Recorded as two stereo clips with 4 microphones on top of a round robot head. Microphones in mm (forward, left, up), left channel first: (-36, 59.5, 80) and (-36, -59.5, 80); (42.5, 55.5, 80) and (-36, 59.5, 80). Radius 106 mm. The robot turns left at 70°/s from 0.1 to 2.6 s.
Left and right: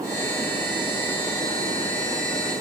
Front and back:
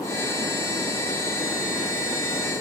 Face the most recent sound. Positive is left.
No sound to turn to.